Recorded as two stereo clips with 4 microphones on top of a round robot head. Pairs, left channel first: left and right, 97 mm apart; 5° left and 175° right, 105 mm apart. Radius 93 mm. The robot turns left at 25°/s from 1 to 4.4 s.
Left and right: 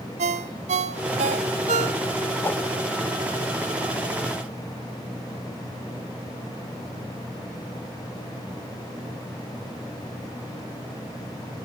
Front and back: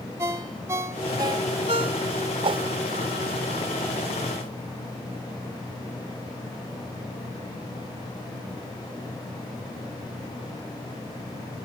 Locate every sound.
0.2 s a ringtone: 100° right, 0.5 m; by 2.4 s 135° right, 0.5 m
2.4 s a whoosh: 160° left, 0.8 m; by 2.6 s 155° left, 0.8 m